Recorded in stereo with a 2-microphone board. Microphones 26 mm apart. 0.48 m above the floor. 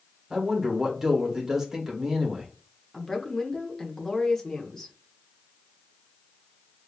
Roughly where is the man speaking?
Right.